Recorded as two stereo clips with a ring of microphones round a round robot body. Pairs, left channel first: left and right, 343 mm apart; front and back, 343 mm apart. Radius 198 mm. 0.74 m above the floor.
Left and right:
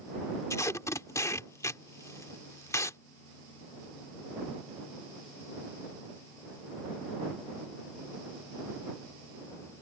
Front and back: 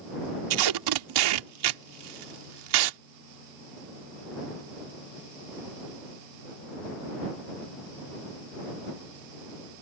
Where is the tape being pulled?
170° left.